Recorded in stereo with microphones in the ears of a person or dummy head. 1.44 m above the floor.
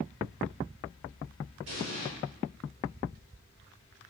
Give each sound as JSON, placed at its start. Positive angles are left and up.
{"t": 1.7, "sound": "an explosion", "side_deg": -80, "distance_m": 8.5}